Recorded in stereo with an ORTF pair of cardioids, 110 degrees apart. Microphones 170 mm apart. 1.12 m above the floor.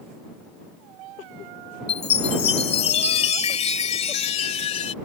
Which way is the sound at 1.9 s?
40° left.